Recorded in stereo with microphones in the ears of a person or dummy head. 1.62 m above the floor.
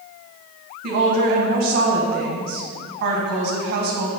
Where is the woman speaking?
55° right (ahead or behind), 1.3 m.